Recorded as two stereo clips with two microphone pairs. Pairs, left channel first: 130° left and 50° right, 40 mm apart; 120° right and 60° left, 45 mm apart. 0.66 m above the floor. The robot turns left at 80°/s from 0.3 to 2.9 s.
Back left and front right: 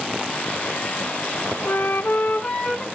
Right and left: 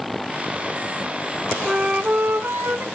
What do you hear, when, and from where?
1.6 s a flute: 140° left, 0.9 m; by 2.8 s 45° left, 0.9 m